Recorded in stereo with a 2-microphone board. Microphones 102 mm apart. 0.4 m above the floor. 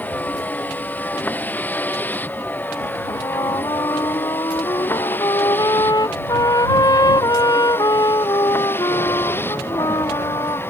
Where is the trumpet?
40° left (ahead or behind).